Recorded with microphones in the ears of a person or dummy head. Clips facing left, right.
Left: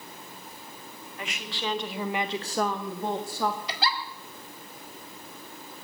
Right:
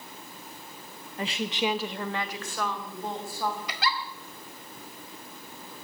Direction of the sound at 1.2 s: 35° right (ahead or behind).